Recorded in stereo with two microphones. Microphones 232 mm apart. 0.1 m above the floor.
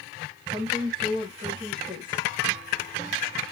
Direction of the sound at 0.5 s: 20° right (ahead or behind).